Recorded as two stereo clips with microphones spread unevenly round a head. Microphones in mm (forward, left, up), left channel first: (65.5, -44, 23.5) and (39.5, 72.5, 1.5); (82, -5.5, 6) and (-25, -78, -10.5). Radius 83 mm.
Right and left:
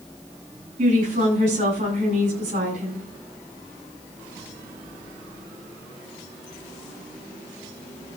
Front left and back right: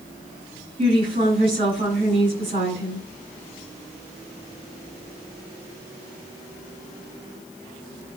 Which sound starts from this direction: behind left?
A woman speaking, at 0.8 s.